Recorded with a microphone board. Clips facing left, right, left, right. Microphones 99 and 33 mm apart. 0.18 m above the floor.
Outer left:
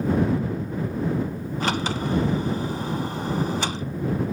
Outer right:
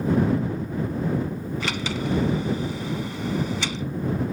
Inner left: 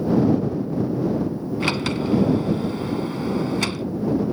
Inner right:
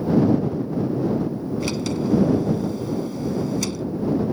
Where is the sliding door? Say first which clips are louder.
Outer left 5 dB, inner left 2 dB; 45° left (ahead or behind).